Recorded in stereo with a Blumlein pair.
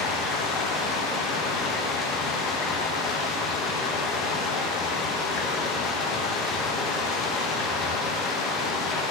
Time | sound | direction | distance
0.0 | running water | 25° left | 1.7 m